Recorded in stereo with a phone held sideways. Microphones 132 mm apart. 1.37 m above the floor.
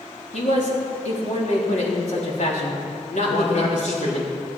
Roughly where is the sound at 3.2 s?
Left.